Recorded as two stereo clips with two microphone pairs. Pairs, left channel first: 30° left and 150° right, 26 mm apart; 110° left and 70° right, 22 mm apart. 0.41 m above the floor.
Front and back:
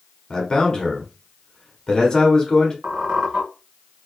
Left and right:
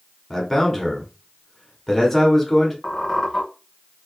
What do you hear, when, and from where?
0.3 s a man speaking: 50° left, 0.9 m
2.8 s a squeak: 170° left, 1.6 m